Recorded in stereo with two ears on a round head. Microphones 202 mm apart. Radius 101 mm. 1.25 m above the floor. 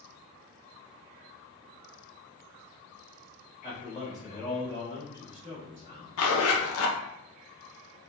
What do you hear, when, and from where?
3.6 s a man speaking: 15° right (ahead or behind), 1.9 m
6.2 s a zipper: 65° left (ahead or behind), 0.7 m